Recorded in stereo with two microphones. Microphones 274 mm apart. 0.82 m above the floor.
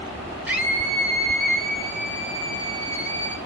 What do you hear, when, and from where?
0.5 s a scream: 5° right (ahead or behind), 3.5 m; by 3.4 s 15° left (ahead or behind), 4 m